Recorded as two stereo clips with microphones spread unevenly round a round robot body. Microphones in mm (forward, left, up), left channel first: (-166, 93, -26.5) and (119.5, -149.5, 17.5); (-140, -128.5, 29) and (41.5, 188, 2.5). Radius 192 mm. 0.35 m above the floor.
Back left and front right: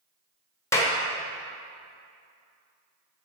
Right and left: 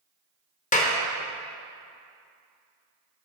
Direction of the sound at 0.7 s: 170° right.